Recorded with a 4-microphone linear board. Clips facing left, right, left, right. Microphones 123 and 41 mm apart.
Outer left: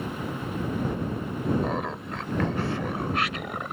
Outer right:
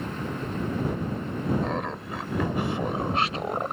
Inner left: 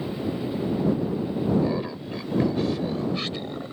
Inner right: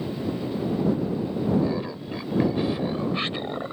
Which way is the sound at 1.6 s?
5° left (ahead or behind).